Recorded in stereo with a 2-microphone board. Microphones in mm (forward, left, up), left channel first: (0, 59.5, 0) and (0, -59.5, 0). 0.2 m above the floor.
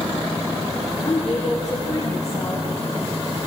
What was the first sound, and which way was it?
A woman speaking, centre (ahead or behind).